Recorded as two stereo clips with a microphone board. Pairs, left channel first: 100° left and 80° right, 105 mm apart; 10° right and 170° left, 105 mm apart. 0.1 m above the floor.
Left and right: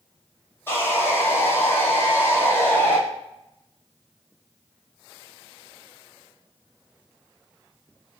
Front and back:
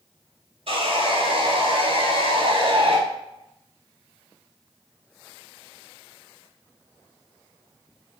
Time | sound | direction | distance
0.7 | sawing | 165° left | 0.6 m